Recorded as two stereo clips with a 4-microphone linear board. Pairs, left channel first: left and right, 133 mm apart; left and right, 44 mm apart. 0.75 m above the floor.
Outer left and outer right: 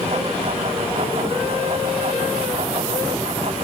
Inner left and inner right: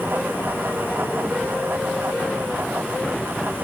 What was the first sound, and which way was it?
Only background noise.